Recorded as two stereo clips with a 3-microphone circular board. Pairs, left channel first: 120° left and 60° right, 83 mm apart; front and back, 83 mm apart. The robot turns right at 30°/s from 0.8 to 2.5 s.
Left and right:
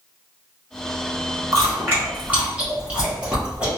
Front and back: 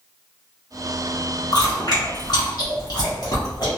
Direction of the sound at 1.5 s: 15° right.